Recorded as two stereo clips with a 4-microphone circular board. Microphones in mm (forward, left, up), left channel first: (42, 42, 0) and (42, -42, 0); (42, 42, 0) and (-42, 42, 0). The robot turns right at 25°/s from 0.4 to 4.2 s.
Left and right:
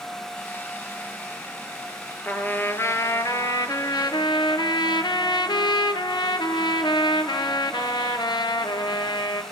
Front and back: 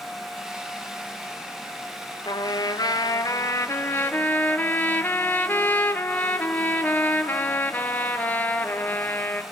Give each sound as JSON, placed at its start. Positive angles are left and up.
{"t": 2.2, "sound": "a trumpet", "azimuth_deg": 20, "distance_m": 0.8}